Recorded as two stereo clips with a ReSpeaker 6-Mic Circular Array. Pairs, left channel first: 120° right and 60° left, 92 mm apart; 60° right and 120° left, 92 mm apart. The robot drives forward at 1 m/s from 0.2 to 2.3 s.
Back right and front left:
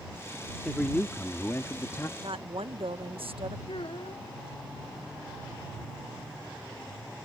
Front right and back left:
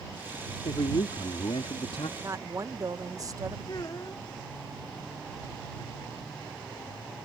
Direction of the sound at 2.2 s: 65° left.